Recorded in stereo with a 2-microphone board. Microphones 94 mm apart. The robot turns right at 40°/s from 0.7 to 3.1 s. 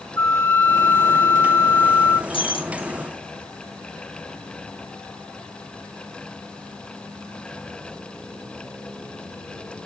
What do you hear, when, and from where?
0.2 s a flute: 25° left (ahead or behind), 1.2 m; by 2.2 s 20° left (ahead or behind), 1.2 m
2.3 s breaking glass: 80° left, 4 m; by 2.9 s 75° left (ahead or behind), 4 m